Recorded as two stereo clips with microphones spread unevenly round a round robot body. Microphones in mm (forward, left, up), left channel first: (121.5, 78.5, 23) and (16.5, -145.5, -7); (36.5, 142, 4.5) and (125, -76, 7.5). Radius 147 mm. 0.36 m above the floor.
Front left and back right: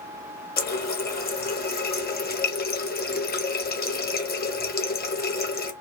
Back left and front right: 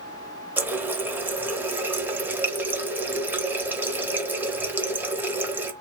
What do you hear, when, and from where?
0.6 s a running tap: 15° left, 0.9 m